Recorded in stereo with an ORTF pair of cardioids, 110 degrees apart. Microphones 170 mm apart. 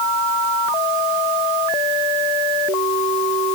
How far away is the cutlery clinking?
No cutlery clinking in this recording.